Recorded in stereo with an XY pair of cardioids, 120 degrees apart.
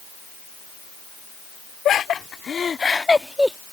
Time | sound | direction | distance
1.9 | laughter | 50° left | ?